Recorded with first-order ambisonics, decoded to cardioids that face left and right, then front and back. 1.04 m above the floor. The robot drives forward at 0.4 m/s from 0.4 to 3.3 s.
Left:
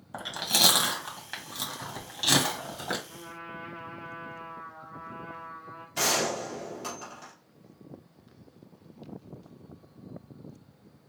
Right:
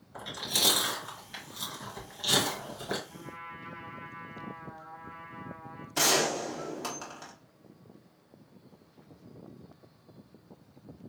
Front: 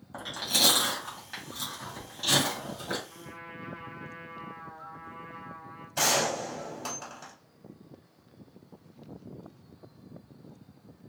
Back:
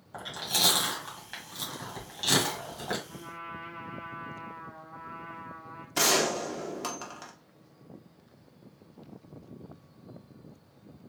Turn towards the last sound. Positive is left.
turn(degrees=-165)